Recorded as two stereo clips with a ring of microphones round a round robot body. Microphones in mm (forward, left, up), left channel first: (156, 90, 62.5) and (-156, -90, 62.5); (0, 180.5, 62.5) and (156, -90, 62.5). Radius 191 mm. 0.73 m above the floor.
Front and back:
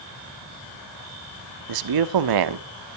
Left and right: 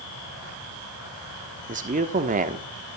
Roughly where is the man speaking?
Behind right.